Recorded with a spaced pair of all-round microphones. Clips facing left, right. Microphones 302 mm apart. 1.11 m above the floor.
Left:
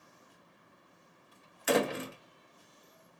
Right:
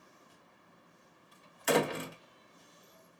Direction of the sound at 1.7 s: Centre (ahead or behind).